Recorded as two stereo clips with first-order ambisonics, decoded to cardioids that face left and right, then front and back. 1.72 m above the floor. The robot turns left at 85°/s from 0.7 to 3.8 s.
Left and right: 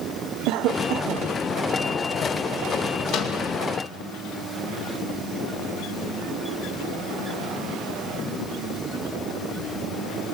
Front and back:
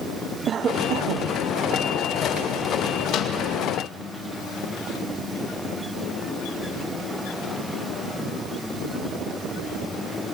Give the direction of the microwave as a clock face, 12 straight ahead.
10 o'clock.